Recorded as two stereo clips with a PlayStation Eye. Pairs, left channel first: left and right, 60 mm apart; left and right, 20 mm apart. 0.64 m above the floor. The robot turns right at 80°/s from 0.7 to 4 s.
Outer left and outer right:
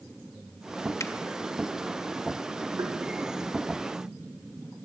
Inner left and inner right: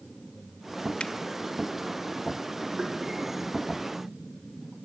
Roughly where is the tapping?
Right.